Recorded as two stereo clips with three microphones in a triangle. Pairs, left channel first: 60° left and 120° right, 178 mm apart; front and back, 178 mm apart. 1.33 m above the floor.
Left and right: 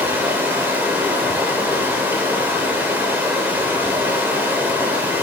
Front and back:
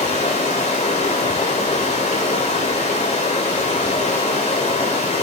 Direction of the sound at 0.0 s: 45° right.